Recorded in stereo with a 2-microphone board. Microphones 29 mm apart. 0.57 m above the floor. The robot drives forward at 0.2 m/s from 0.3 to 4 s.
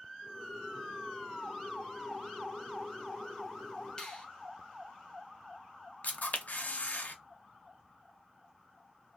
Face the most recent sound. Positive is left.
turn(degrees=75)  # may be behind; listen again after turning